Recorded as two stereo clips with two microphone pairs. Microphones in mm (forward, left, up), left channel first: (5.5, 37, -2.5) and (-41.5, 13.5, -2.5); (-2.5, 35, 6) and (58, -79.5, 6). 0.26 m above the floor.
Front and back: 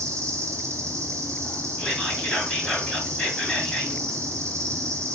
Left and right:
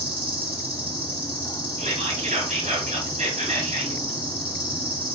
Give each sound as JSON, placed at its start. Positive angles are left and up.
{"t": 0.0, "sound": "an insect", "azimuth_deg": -140, "distance_m": 2.0}
{"t": 1.8, "sound": "whispering", "azimuth_deg": -50, "distance_m": 3.0}